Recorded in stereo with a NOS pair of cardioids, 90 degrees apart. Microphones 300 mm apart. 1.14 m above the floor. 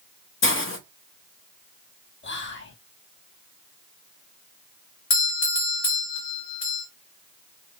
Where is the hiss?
40° left, 0.9 m.